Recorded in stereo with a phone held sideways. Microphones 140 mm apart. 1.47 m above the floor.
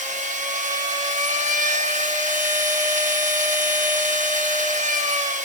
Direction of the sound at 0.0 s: 60° right (ahead or behind).